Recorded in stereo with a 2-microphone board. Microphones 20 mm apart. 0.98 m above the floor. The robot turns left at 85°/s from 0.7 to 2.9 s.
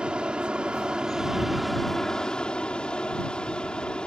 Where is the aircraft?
95° right; by 4.1 s 80° left.